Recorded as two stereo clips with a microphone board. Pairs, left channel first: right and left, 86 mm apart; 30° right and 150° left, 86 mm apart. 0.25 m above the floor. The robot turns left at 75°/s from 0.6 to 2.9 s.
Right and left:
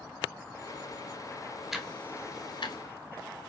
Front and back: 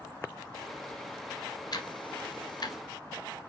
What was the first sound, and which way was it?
Ticking, 5° left.